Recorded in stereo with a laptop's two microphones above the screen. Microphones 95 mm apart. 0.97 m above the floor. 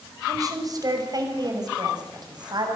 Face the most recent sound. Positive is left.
turn(degrees=-50)  # may be behind; listen again after turning